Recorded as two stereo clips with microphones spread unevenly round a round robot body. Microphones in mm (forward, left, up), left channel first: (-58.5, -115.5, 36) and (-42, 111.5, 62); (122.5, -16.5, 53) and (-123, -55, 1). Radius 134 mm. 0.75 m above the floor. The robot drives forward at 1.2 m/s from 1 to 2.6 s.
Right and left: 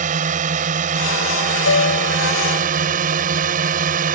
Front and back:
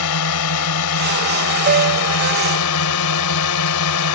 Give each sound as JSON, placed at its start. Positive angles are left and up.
{"t": 0.0, "sound": "a drone", "azimuth_deg": 25}
{"t": 1.7, "sound": "a piano", "azimuth_deg": -120}